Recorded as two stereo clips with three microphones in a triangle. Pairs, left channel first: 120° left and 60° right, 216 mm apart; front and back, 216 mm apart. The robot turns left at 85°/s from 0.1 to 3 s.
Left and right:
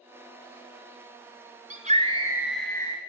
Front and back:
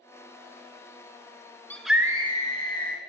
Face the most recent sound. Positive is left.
turn(degrees=175)